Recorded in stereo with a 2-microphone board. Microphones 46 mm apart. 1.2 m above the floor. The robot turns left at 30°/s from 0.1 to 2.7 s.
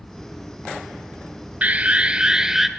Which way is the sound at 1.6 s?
140° right.